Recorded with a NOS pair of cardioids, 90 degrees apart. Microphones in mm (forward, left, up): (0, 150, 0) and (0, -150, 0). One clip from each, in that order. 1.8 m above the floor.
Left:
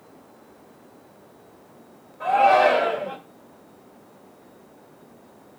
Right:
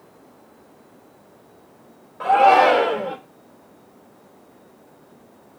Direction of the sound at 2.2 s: 70° right.